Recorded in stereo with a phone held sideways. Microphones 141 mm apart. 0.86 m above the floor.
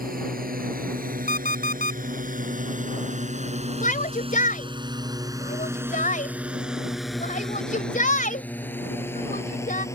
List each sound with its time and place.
0.0 s a drone: 85° right; by 9.9 s 20° left (ahead or behind)
1.3 s an alarm clock: 65° left (ahead or behind)
3.8 s a shout: 65° left (ahead or behind)